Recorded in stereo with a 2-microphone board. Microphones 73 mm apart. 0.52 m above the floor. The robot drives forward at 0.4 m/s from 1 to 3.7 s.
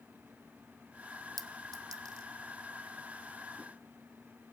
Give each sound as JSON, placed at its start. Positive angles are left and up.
{"t": 1.4, "sound": "a clink", "side_deg": -60, "distance_m": 0.5}